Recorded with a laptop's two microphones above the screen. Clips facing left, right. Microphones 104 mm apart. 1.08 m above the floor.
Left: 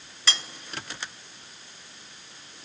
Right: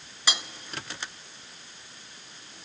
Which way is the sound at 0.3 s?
15° right (ahead or behind).